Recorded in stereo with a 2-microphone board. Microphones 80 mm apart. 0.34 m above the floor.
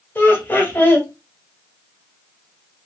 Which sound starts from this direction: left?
Laughter, at 0.1 s.